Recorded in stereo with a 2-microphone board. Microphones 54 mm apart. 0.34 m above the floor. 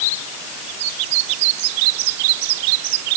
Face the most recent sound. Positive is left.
No sound to turn to.